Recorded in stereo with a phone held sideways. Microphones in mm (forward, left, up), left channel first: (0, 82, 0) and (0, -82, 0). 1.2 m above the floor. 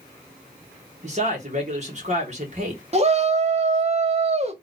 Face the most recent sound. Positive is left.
turn(degrees=-40)  # may be behind; listen again after turning